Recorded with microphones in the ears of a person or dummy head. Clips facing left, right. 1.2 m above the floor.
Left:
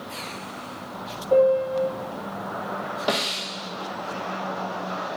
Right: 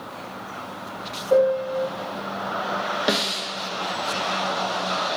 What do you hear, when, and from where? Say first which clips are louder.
1.3 s a piano: left 1 dB; 20° right (ahead or behind), 0.8 m
3.1 s a snare drum: even; 25° right (ahead or behind), 1.0 m